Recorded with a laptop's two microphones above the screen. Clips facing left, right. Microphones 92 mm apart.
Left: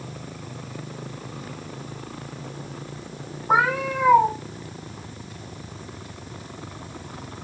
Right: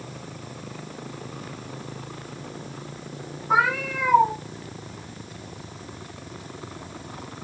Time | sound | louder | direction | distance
3.5 | a cat meowing | left 1 dB | 45° left (ahead or behind) | 1.2 m